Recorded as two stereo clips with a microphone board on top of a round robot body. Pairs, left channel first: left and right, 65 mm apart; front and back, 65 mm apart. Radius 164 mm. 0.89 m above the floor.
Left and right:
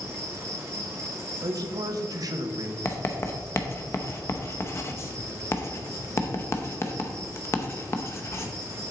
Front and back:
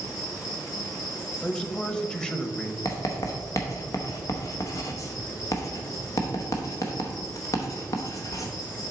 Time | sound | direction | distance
0.0 | an insect | 40° right | 2.5 m
1.4 | a man speaking | 80° right | 1.1 m
2.9 | writing | 40° left | 0.9 m